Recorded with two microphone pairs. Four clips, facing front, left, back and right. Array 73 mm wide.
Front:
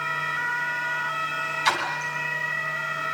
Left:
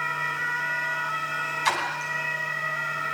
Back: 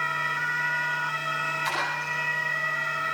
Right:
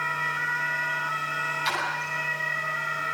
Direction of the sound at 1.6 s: 65° left.